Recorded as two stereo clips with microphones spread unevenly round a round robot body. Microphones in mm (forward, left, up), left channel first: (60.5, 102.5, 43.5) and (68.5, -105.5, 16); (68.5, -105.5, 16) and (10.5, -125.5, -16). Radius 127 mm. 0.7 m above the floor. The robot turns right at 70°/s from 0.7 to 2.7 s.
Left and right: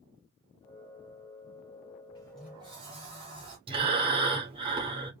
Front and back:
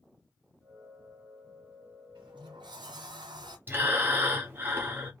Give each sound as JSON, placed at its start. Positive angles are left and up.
{"t": 2.1, "sound": "a sliding door", "azimuth_deg": 160, "distance_m": 1.0}
{"t": 3.7, "sound": "breathing", "azimuth_deg": -145, "distance_m": 1.1}